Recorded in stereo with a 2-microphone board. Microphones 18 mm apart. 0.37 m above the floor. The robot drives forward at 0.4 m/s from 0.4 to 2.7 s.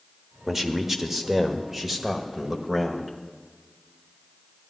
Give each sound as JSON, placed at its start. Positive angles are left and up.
{"t": 0.5, "sound": "a man speaking", "side_deg": -20, "distance_m": 1.1}